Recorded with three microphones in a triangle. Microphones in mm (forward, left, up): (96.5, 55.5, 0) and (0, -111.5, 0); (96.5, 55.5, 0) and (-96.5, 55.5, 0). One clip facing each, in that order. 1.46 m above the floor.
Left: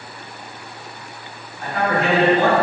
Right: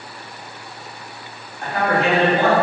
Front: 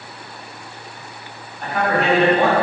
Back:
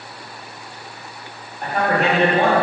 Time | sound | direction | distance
1.6 | a man speaking | 140° right | 1.1 m